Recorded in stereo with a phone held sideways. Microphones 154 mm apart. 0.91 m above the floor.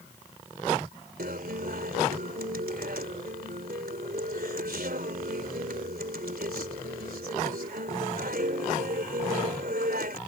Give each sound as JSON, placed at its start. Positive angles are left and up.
{"t": 1.2, "sound": "a guitar", "side_deg": -80}